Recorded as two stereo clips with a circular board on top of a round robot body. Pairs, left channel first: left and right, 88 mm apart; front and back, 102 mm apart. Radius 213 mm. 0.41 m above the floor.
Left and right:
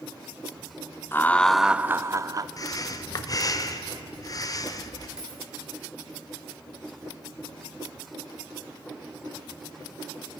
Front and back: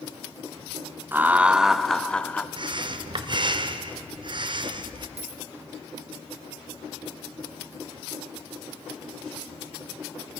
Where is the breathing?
140° left, 0.8 m.